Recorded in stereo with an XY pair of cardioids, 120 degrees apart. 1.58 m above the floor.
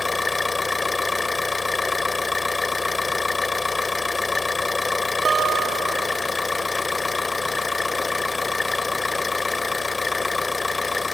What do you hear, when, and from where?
0.0 s an engine running: 20° left
5.2 s a guitar: 60° right